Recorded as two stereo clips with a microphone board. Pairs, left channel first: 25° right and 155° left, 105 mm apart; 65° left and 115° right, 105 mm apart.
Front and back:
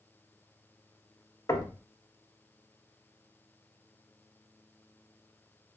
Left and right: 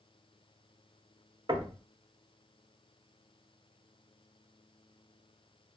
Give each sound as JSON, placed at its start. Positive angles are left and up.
{"t": 1.5, "sound": "knocking", "azimuth_deg": -75, "distance_m": 0.9}